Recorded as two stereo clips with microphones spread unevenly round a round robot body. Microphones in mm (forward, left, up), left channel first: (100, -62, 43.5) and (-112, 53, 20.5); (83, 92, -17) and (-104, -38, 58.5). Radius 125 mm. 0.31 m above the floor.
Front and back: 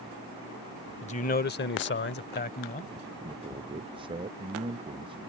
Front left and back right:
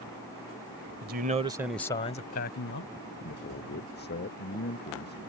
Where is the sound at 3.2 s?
80° left.